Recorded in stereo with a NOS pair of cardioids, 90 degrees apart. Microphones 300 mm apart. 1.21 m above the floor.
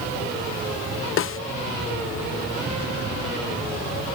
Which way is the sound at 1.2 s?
45° left.